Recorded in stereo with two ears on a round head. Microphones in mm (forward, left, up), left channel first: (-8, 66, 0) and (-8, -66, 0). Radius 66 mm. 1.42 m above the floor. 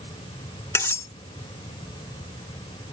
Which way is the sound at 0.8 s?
20° left (ahead or behind).